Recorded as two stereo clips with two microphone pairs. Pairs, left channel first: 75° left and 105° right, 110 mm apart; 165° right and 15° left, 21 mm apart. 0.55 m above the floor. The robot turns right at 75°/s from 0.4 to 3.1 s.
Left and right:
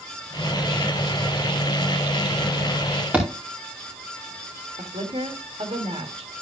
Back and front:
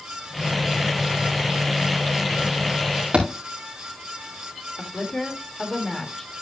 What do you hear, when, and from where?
3.1 s a thud: 25° right, 4.5 m
4.8 s a woman speaking: 100° right, 1.7 m